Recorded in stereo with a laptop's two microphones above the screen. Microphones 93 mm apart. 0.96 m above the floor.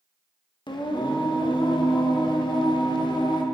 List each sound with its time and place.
0.7 s singing: 55° left (ahead or behind), 1.0 m